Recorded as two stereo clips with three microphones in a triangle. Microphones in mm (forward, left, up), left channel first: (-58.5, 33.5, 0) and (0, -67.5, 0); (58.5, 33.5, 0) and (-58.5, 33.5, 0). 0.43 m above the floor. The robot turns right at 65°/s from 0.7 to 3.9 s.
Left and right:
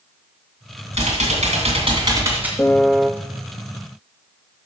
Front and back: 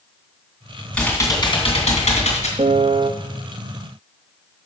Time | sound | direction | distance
0.9 | typing on a keyboard | 80° right | 2.5 m
2.6 | a piano | 170° right | 0.5 m